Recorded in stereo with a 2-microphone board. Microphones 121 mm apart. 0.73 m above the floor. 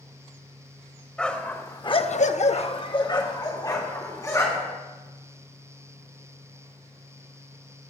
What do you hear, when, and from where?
1.2 s a dog barking: 10° left (ahead or behind), 1.4 m; by 4.8 s 25° left (ahead or behind), 3.5 m